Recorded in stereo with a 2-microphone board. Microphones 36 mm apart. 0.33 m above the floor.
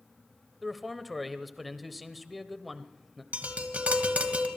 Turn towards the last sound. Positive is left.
turn(degrees=-40)  # may be behind; listen again after turning